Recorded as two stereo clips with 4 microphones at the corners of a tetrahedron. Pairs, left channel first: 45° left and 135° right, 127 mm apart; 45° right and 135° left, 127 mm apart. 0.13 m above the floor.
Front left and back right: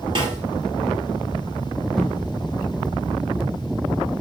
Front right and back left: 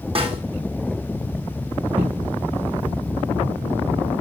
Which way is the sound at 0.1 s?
175° left.